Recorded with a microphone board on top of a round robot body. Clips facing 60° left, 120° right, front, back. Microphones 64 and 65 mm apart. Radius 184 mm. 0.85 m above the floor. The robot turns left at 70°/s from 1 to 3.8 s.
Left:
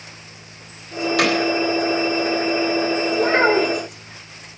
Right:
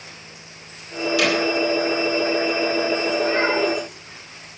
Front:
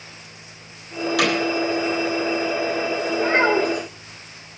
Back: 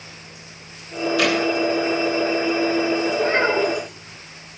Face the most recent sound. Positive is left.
turn(degrees=35)